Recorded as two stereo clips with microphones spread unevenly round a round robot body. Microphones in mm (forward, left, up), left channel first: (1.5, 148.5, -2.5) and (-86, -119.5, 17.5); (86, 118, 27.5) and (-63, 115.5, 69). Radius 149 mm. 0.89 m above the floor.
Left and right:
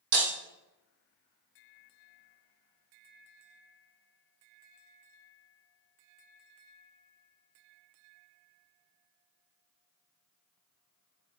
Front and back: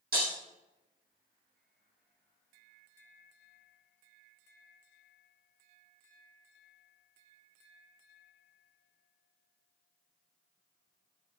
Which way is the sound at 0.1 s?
135° right.